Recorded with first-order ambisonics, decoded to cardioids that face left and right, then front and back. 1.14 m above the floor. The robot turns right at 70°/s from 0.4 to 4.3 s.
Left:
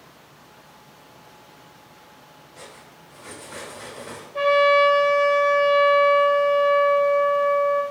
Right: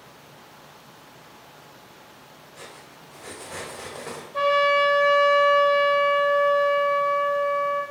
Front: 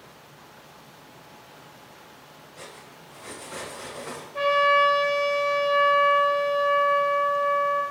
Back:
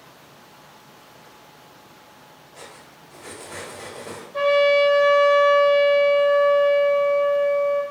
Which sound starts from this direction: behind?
Cutlery clinking, at 2.5 s.